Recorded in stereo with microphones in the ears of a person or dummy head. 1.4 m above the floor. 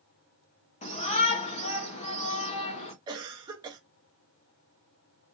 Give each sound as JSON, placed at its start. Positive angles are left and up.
{"t": 0.8, "sound": "a shout", "side_deg": 35, "distance_m": 1.3}
{"t": 3.1, "sound": "a cough", "side_deg": -25, "distance_m": 0.9}